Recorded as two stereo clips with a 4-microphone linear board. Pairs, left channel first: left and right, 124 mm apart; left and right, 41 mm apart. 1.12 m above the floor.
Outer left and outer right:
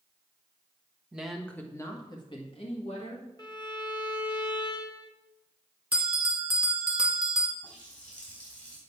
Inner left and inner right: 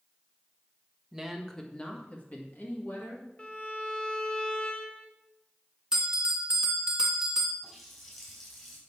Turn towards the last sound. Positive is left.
turn(degrees=10)  # may be behind; listen again after turning